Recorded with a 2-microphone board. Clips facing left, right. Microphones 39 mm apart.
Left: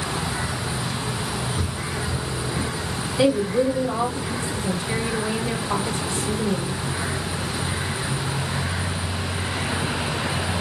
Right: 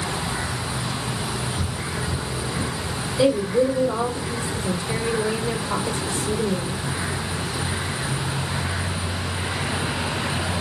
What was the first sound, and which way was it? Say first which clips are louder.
Footsteps: even; 45° left (ahead or behind).